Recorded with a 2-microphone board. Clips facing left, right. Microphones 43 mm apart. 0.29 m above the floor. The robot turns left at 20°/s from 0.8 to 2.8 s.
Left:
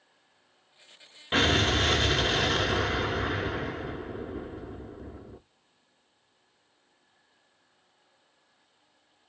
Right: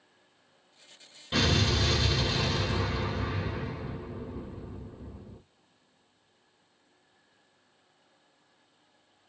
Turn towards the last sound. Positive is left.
turn(degrees=70)  # may be behind; listen again after turning